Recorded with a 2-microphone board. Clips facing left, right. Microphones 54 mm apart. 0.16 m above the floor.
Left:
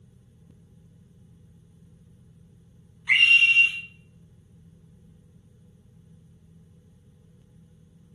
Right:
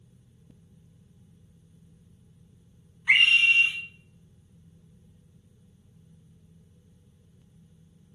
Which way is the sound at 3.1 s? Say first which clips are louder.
Left 1 dB; 15° right (ahead or behind).